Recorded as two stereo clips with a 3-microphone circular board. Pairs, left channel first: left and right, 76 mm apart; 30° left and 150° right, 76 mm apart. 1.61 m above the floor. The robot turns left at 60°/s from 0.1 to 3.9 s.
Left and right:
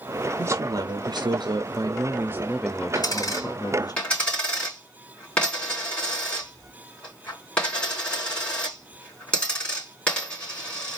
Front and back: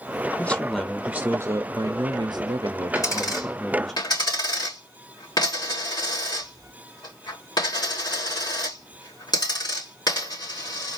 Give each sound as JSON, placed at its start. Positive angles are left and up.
{"t": 0.4, "sound": "a man speaking", "azimuth_deg": -35, "distance_m": 0.7}
{"t": 3.0, "sound": "a dropped coin", "azimuth_deg": 75, "distance_m": 3.0}